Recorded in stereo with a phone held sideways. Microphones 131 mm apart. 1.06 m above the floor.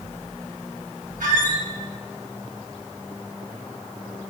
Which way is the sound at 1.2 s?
85° right.